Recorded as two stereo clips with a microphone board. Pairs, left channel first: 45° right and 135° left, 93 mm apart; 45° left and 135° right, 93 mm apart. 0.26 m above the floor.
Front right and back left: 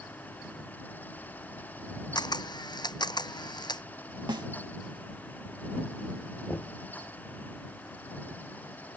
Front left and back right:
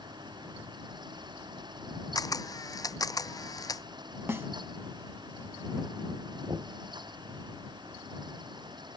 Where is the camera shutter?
5° right.